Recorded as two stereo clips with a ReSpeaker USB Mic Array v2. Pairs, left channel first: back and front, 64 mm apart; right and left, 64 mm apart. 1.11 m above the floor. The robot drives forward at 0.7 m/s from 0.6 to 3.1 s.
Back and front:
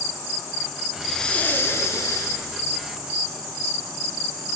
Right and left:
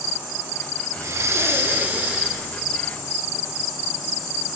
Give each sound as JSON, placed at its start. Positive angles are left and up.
{"t": 1.0, "sound": "breathing", "azimuth_deg": 80, "distance_m": 0.6}